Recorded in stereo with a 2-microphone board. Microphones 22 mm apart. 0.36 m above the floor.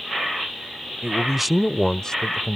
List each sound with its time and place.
1.0 s a man speaking: 25° right (ahead or behind); by 2.6 s 50° left (ahead or behind)